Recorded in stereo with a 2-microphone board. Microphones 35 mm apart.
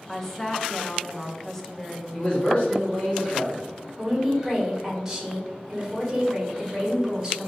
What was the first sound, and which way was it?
A woman speaking, 15° left (ahead or behind).